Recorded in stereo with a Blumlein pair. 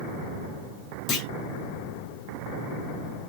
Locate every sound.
1.1 s a clunk: 20° left, 1.2 m